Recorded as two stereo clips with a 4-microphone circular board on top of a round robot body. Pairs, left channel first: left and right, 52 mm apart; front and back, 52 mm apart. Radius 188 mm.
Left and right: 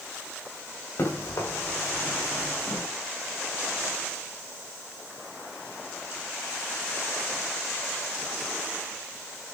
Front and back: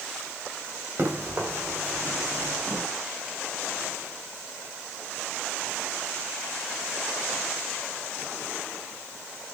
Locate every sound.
1.0 s running footsteps: 130° left, 6 m; by 2.8 s 120° left, 5.5 m